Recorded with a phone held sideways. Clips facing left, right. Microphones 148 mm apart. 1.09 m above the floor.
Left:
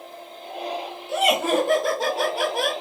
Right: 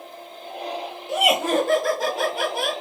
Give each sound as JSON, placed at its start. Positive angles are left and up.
{"t": 1.1, "sound": "laughter", "side_deg": -20, "distance_m": 0.6}